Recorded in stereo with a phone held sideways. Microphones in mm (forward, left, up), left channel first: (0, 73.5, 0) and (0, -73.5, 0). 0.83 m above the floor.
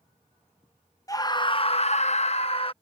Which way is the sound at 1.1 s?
25° left (ahead or behind).